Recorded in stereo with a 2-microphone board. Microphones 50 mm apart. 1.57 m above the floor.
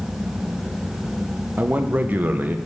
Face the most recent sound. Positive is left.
turn(degrees=-35)  # may be behind; listen again after turning